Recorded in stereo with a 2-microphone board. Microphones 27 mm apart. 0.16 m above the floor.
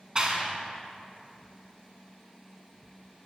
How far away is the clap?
About 1.1 m.